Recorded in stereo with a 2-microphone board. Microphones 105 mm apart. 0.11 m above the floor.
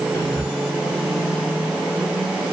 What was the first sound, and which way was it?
Whispering, 30° left (ahead or behind).